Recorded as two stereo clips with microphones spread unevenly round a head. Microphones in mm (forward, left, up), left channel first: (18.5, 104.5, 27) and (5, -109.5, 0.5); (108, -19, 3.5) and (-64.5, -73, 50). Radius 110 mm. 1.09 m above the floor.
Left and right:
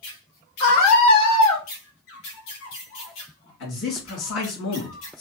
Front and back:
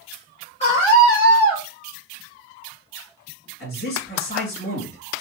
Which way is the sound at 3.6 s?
70° left.